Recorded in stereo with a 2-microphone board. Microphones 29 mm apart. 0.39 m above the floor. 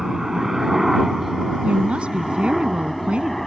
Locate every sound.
0.0 s a helicopter: 15° right (ahead or behind); by 3.5 s 10° left (ahead or behind)
1.6 s a woman speaking: 45° right (ahead or behind)